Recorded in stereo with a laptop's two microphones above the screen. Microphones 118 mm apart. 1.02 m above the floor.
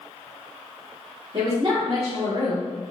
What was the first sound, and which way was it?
A woman speaking, 40° right (ahead or behind).